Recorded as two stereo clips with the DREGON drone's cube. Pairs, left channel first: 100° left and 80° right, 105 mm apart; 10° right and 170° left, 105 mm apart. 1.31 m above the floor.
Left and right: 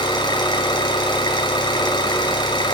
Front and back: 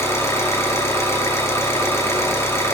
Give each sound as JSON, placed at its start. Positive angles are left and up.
{"t": 0.0, "sound": "an engine running", "azimuth_deg": 55, "distance_m": 5.5}